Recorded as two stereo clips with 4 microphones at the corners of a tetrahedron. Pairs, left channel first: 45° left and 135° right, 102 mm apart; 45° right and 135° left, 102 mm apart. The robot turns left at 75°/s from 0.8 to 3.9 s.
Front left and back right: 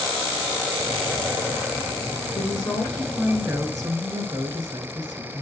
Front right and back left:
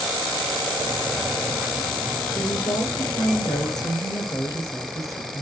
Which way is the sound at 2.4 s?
20° left.